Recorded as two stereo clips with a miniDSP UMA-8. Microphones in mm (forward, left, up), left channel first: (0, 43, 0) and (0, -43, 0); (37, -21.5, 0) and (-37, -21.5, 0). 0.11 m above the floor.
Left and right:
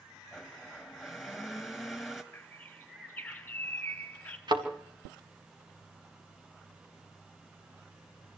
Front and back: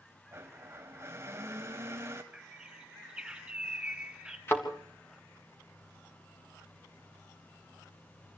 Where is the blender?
Straight behind, 1.6 m.